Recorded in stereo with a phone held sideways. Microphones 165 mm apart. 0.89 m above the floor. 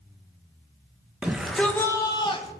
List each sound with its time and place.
1.2 s a shout: 5° right (ahead or behind), 1.0 m; by 2.5 s 35° left (ahead or behind), 1.1 m